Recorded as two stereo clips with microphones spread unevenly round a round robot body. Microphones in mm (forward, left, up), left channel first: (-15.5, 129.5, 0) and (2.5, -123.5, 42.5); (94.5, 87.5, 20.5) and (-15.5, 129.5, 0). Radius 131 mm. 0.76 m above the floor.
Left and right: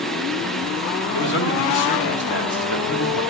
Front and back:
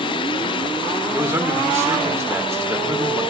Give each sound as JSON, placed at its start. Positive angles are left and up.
{"t": 1.1, "sound": "a man speaking", "azimuth_deg": 90, "distance_m": 3.5}